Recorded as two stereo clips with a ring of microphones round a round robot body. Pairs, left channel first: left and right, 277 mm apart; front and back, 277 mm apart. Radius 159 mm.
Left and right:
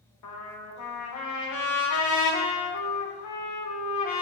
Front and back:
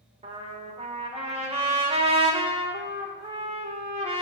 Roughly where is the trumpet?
Behind left.